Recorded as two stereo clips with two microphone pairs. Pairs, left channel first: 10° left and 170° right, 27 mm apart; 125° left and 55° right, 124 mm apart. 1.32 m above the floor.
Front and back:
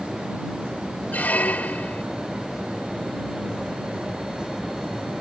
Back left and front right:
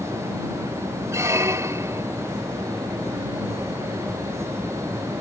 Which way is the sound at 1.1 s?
10° left.